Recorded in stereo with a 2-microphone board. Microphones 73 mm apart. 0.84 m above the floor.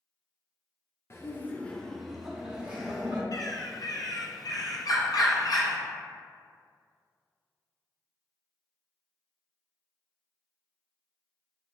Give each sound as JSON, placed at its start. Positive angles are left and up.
{"t": 1.1, "sound": "laughter", "side_deg": 35, "distance_m": 0.7}
{"t": 3.3, "sound": "a bird", "side_deg": 55, "distance_m": 0.6}